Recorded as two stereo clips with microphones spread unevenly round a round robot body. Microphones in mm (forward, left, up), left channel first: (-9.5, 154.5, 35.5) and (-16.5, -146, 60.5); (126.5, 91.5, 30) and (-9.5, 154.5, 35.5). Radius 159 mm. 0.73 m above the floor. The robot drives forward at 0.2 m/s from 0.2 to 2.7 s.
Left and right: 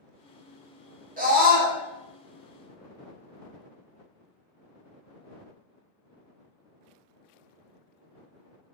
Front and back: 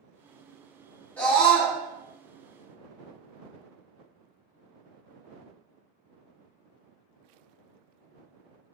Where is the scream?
75° right, 0.9 m; by 1.8 s 95° right, 0.9 m.